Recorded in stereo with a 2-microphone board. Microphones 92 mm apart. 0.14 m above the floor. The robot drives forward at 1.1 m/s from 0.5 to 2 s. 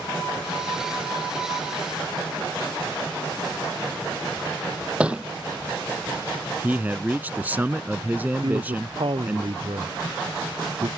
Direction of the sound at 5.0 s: 10° right (ahead or behind).